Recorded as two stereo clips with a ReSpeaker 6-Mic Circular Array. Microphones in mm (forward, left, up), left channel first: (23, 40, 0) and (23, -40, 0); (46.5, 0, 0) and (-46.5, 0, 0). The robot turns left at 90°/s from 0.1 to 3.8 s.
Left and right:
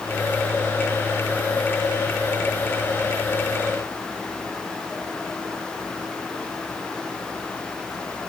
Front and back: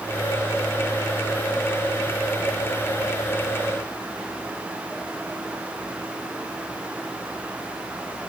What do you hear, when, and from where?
Only background noise.